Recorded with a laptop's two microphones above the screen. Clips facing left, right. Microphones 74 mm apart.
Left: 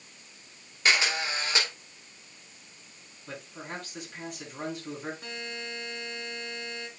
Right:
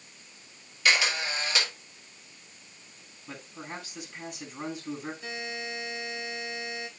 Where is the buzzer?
60° left (ahead or behind), 3.5 m.